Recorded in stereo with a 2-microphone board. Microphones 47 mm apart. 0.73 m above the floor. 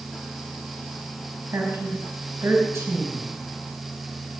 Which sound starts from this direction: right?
A woman speaking, at 1.5 s.